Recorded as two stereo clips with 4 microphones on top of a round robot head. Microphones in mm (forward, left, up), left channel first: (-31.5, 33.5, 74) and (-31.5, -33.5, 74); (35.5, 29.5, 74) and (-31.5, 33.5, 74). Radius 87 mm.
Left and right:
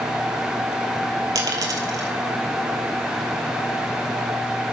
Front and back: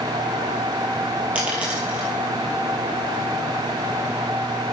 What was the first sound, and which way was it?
A dropped coin, 110° right.